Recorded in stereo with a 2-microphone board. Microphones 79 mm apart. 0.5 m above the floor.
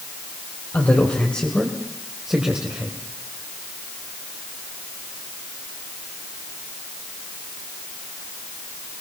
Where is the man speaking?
25° left (ahead or behind), 2.5 m; by 3.0 s 20° right (ahead or behind), 2.5 m.